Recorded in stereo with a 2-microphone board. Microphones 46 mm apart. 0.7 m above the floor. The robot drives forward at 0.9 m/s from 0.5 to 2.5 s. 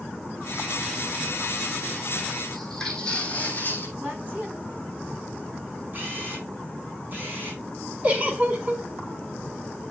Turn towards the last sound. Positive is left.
turn(degrees=-30)  # may be behind; listen again after turning